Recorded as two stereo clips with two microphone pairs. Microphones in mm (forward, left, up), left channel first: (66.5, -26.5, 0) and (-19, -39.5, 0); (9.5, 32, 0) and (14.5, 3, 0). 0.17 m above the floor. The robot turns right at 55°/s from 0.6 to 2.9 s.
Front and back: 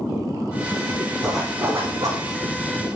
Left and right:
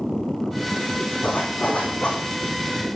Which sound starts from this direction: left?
A zipper, at 1.2 s.